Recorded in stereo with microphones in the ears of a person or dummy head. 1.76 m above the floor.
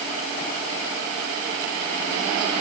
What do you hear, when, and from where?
Only background noise.